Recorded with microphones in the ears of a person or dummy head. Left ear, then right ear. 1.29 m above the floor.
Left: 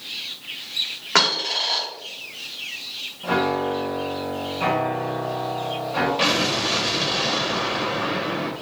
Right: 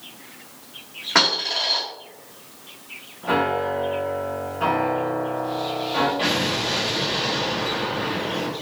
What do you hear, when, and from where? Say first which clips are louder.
1.1 s a dropped coin: even; 25° left (ahead or behind), 1.4 m
3.2 s a piano: right 1 dB; 15° right (ahead or behind), 1.4 m
6.2 s an explosion: left 2 dB; 70° left (ahead or behind), 0.8 m